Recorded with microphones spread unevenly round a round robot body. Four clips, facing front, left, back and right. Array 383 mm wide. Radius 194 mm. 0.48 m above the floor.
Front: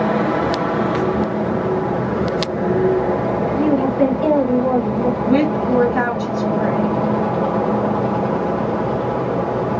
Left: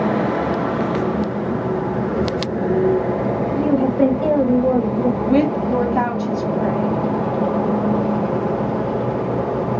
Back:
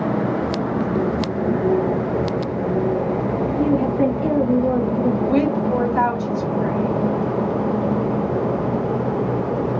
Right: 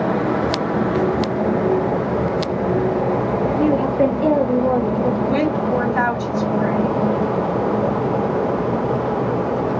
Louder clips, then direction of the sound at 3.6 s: Left 1 dB, front 2 dB; 120° left.